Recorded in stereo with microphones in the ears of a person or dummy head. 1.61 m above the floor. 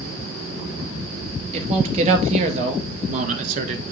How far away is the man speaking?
About 2.5 m.